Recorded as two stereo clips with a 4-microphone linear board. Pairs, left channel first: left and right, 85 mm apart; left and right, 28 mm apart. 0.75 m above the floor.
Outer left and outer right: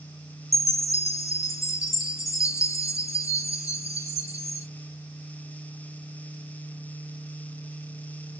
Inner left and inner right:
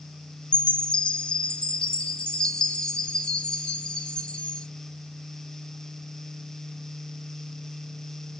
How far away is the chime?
About 0.6 m.